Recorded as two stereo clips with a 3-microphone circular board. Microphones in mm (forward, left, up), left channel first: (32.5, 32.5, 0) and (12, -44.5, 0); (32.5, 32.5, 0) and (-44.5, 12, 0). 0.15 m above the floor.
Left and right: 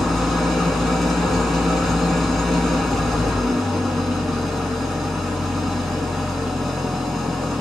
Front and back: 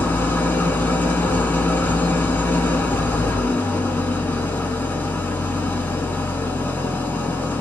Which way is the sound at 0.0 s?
20° right.